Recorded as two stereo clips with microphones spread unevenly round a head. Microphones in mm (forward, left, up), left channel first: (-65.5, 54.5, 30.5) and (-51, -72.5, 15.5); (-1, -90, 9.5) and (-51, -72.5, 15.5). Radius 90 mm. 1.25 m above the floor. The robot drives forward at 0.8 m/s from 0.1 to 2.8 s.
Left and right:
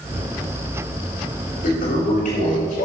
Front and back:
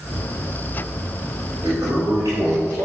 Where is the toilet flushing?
100° left, 4.5 m; by 2.9 s 110° left, 5 m.